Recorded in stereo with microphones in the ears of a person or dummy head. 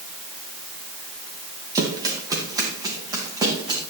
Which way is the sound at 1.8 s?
20° right (ahead or behind).